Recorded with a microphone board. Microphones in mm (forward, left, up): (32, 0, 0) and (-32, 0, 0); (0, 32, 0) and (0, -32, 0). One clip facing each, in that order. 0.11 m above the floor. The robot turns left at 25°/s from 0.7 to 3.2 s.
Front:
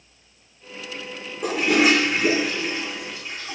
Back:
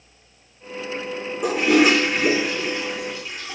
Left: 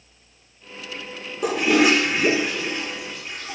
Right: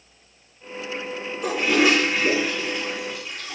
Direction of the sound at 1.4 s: 95° left.